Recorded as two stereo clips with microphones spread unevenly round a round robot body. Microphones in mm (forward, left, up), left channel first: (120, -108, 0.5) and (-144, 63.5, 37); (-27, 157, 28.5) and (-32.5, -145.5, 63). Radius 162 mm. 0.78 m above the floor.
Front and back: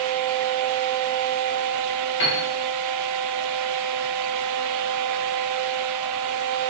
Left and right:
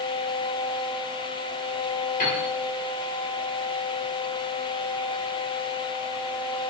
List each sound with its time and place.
2.2 s a piano: 25° left, 2 m